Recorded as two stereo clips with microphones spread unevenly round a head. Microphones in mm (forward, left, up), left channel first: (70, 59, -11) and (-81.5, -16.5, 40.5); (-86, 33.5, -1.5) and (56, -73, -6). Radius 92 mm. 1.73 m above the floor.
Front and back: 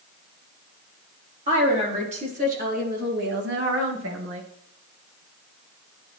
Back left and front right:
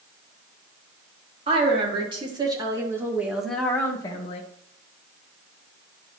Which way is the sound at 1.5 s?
95° right.